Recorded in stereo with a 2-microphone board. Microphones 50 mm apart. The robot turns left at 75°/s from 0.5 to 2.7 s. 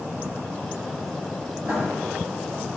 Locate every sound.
1.6 s writing: 35° right (ahead or behind), 2.5 m; by 1.9 s 50° right (ahead or behind), 2.5 m